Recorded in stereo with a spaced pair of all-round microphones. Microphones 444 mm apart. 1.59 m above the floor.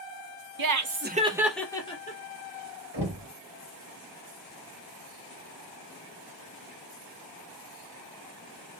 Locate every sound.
0.6 s laughter: 55° right (ahead or behind), 0.6 m; by 2.2 s 15° left (ahead or behind), 1.1 m
2.9 s knocking: 60° right (ahead or behind), 1.4 m